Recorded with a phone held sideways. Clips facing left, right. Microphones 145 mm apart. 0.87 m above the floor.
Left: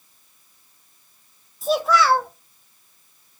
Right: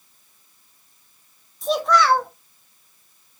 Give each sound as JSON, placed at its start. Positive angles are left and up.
{"t": 1.6, "sound": "a child speaking", "side_deg": 5, "distance_m": 0.6}